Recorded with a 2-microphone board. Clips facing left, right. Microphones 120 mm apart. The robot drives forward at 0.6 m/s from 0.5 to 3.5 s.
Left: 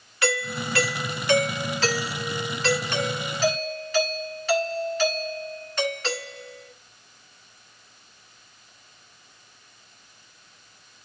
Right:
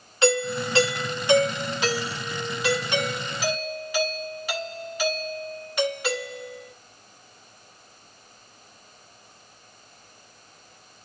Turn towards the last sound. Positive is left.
turn(degrees=-10)  # may be behind; listen again after turning